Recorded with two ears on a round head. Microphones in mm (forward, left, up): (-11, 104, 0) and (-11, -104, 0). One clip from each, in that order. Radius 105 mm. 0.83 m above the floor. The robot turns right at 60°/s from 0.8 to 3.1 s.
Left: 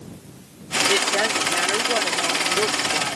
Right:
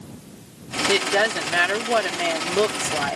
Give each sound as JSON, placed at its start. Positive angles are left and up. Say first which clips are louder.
{"t": 0.9, "sound": "a woman speaking", "louder": "right 3 dB", "azimuth_deg": 180}